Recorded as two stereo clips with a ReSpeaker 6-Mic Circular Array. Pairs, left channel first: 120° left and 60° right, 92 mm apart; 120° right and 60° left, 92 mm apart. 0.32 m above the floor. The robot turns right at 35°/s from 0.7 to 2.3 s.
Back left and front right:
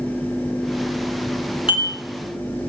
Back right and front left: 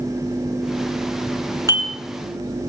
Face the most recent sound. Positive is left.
turn(degrees=130)